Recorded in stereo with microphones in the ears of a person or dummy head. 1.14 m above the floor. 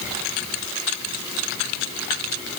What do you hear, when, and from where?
Only background noise.